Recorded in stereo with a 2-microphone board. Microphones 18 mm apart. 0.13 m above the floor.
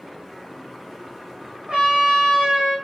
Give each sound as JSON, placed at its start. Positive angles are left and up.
{"t": 1.7, "sound": "a trumpet", "side_deg": -70, "distance_m": 3.0}